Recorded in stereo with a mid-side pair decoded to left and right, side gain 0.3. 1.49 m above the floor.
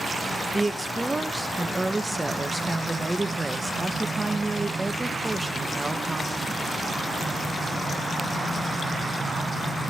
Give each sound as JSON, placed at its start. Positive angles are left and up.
{"t": 0.5, "sound": "a woman speaking", "azimuth_deg": -25, "distance_m": 1.2}